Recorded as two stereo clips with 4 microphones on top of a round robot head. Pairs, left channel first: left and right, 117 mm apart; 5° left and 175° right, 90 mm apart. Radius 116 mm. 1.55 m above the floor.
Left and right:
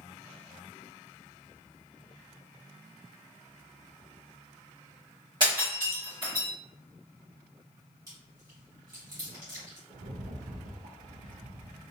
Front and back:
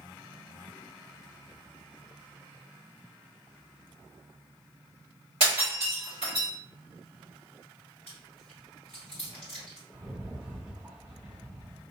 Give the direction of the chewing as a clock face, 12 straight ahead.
1 o'clock.